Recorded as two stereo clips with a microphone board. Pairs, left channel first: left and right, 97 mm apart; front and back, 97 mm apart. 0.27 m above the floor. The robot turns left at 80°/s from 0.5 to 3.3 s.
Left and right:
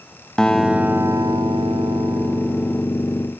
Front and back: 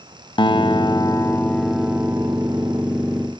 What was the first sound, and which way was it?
A guitar, 10° left.